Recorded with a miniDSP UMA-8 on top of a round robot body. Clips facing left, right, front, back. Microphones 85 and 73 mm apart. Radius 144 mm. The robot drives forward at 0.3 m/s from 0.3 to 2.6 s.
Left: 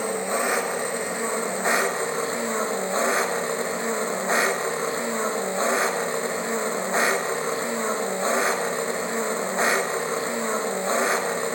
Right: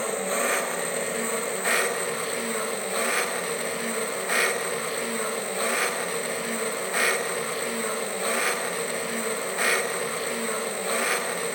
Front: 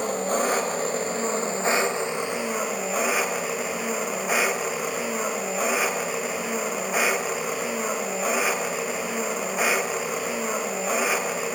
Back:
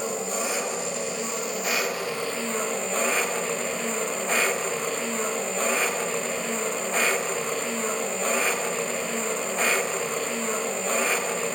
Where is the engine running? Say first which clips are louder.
Left 2 dB, front 5 dB; 20° left, 1.1 m; by 11.6 s 70° left, 0.8 m.